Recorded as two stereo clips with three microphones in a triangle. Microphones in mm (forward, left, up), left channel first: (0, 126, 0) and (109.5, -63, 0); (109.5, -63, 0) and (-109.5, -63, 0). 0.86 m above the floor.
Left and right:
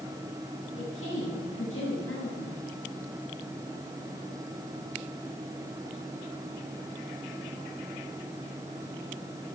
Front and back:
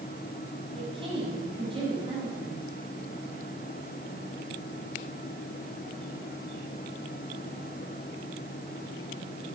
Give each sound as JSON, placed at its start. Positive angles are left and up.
{"t": 0.8, "sound": "a woman speaking", "azimuth_deg": 115, "distance_m": 6.0}